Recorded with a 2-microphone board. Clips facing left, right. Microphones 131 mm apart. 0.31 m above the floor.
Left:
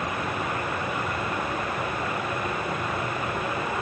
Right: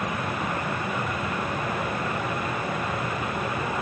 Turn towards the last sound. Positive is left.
No sound to turn to.